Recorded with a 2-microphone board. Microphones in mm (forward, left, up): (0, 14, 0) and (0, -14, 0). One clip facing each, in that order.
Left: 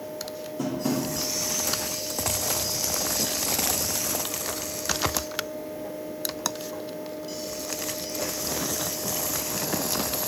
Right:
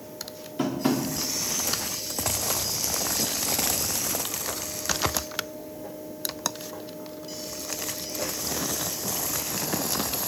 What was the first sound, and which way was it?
Tapping, 50° right (ahead or behind).